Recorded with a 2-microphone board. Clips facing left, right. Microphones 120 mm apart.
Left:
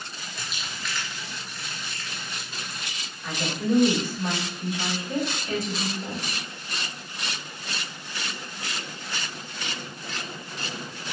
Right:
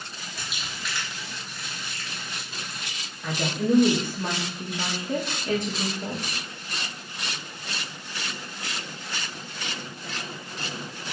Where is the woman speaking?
60° right (ahead or behind), 1.4 m.